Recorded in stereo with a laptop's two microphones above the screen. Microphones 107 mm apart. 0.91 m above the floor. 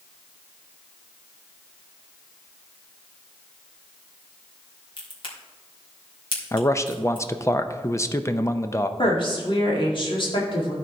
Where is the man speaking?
25° left (ahead or behind), 0.6 m.